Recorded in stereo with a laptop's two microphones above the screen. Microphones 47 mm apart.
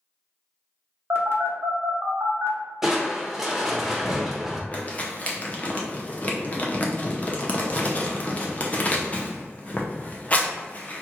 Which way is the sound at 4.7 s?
30° left (ahead or behind).